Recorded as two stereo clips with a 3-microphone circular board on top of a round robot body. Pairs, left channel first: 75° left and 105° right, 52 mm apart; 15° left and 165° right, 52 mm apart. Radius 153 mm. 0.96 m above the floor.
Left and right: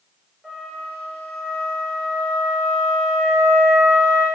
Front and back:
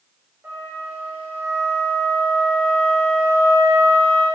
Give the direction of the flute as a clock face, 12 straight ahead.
7 o'clock.